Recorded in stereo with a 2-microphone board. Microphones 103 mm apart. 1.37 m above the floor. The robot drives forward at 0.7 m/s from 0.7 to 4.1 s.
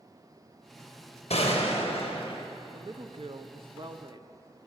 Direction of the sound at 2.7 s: 45° right (ahead or behind).